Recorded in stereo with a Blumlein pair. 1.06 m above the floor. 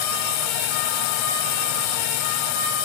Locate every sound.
0.0 s a drone: 45° left